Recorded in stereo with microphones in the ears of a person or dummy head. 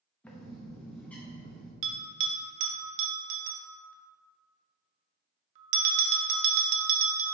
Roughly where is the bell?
Right.